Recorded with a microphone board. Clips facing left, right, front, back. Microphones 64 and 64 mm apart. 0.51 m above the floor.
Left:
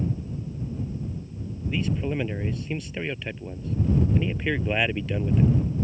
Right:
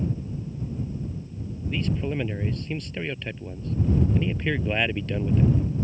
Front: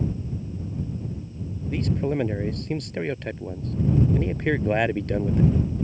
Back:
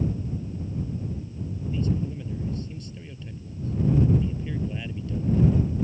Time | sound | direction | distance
1.7 | a man speaking | 5° left | ?